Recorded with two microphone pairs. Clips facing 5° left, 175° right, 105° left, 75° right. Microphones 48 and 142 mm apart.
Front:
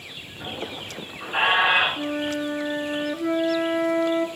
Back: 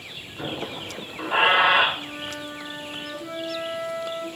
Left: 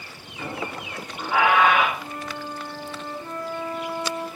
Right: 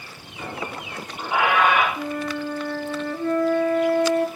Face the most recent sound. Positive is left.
turn(degrees=-50)